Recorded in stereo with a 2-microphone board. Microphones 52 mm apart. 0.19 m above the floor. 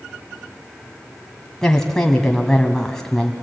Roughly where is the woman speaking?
Centre.